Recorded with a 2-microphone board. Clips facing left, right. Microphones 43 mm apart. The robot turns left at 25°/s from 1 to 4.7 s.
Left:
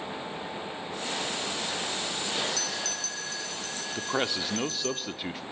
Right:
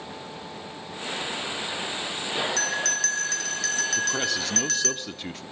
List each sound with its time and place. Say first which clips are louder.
2.6 s a bell: right 7 dB; 55° right, 1.9 m; by 5.0 s 105° right, 1.9 m
4.0 s a man speaking: right 3 dB; 20° left (ahead or behind), 0.8 m; by 5.4 s 10° left (ahead or behind), 0.8 m